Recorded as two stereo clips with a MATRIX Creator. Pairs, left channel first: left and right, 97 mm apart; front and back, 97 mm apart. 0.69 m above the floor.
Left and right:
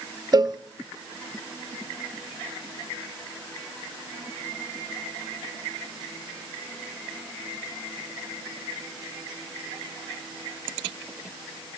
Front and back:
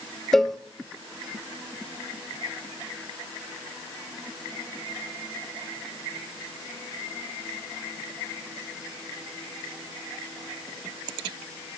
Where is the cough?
No cough in this recording.